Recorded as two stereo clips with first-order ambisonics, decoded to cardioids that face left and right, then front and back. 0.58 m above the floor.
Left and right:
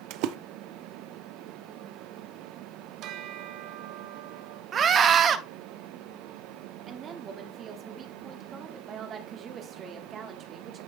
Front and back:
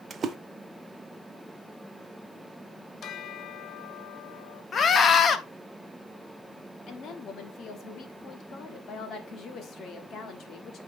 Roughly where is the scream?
Ahead right.